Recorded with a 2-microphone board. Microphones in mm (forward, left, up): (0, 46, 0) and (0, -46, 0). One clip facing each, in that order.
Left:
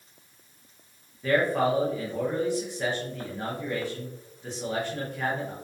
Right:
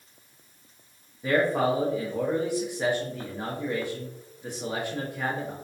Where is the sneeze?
I don't hear a sneeze.